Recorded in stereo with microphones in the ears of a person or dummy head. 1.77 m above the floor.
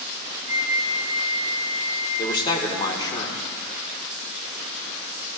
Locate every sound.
0.5 s a flute: 40° right (ahead or behind), 5 m
2.2 s a man speaking: 25° left (ahead or behind), 2 m